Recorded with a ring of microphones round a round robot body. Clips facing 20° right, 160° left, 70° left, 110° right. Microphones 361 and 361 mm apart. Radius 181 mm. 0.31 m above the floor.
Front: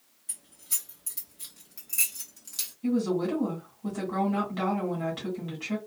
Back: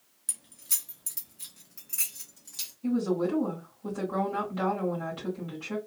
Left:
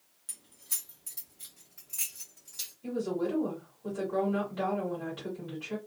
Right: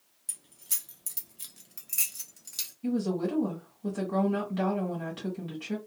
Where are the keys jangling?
170° left, 0.9 m; by 2.7 s 95° right, 1.4 m.